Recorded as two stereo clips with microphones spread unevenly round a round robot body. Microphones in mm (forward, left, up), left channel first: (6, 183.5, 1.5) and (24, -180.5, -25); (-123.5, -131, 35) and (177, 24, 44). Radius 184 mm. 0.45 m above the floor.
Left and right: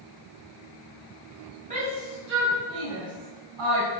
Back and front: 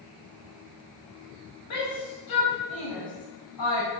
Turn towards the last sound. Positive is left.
turn(degrees=-120)